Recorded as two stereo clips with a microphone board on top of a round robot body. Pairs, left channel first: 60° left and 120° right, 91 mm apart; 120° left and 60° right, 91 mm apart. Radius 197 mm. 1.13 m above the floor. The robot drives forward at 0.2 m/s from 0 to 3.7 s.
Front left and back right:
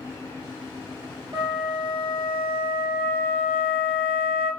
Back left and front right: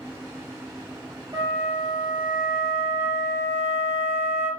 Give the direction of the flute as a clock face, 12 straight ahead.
3 o'clock.